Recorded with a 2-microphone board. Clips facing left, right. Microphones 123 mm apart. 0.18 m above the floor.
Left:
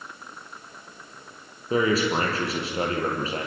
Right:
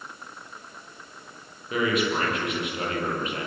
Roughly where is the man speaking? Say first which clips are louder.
Left 3 dB; left.